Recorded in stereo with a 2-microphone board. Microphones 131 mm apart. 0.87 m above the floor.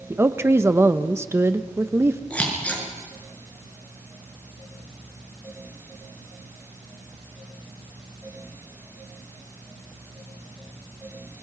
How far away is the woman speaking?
About 0.9 m.